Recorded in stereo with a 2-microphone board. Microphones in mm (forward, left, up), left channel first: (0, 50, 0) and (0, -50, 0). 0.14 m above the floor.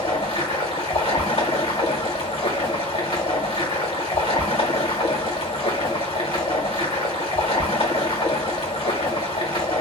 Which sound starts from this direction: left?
Running water, at 0.0 s.